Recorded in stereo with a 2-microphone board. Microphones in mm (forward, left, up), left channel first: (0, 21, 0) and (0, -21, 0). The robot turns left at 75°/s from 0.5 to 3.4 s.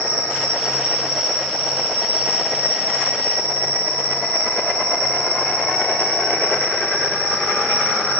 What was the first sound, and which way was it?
An insect, 125° right.